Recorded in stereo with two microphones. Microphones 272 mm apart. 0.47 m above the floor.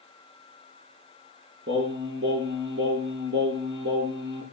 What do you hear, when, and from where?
1.7 s singing: 45° right (ahead or behind), 5 m